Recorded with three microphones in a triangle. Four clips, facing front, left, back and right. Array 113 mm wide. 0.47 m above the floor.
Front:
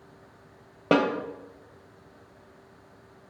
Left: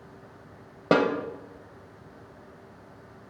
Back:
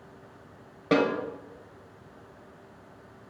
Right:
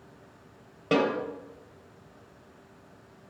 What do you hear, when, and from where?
0.9 s a snare drum: 45° left, 0.8 m